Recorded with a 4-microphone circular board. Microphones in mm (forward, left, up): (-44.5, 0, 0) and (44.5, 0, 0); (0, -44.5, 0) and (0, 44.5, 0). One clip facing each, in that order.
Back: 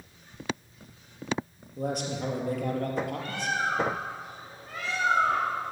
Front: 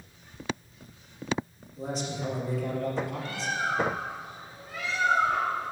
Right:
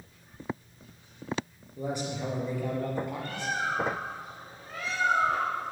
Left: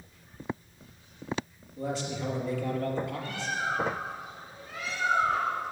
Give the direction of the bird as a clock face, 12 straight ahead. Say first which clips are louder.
Back 1 dB, right 1 dB; 5 o'clock.